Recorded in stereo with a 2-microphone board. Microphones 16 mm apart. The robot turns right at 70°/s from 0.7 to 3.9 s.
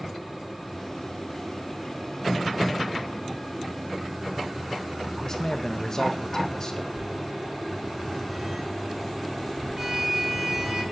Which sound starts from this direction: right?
A sliding door, at 6.9 s.